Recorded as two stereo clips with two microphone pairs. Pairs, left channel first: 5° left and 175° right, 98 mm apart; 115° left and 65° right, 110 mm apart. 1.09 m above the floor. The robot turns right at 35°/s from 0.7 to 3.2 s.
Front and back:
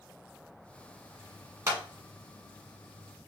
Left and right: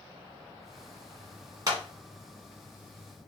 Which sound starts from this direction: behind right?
A clap, at 1.7 s.